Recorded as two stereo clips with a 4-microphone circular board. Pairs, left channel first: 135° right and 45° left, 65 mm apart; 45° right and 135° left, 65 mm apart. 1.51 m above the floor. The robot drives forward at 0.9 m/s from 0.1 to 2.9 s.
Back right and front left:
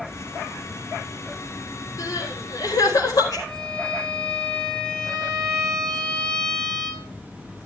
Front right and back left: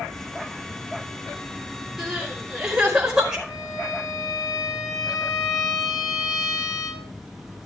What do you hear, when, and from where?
2.0 s crying: 140° right, 4 m; by 3.4 s 150° right, 4.5 m
3.5 s a violin: 60° right, 2.5 m